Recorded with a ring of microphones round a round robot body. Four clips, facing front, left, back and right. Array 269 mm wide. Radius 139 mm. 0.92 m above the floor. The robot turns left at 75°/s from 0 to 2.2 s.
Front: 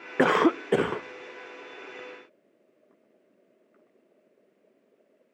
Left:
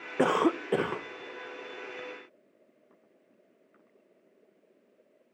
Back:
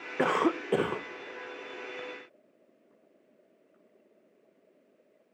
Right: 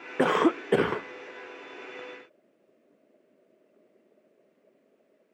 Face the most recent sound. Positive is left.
turn(degrees=-160)